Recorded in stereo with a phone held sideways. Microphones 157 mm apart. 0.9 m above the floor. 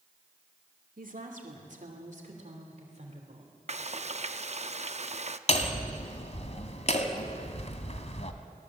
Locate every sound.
1.0 s a woman speaking: 65° right (ahead or behind), 2 m; by 3.5 s 45° right (ahead or behind), 3 m
3.7 s frying: 50° right (ahead or behind), 0.6 m
5.5 s hammering: 50° left (ahead or behind), 1.5 m